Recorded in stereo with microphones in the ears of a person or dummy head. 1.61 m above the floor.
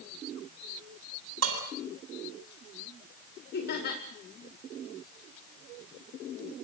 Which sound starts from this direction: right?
Dishes clattering, at 1.4 s.